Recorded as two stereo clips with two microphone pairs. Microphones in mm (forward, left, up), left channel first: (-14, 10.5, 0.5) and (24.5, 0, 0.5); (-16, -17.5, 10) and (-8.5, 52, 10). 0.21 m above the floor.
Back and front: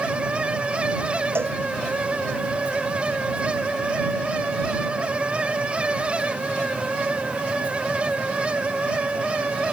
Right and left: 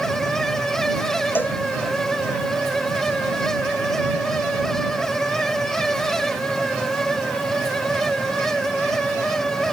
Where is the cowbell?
35° right.